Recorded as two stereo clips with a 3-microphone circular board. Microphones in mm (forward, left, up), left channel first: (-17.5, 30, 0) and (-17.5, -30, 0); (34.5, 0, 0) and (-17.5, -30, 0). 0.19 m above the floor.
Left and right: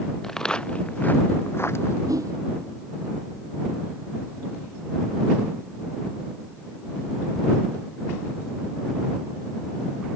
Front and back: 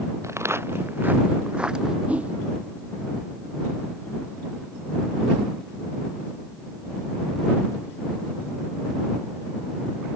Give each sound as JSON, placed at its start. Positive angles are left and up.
{"t": 0.2, "sound": "footsteps", "azimuth_deg": 175}
{"t": 2.1, "sound": "a whoosh", "azimuth_deg": -85}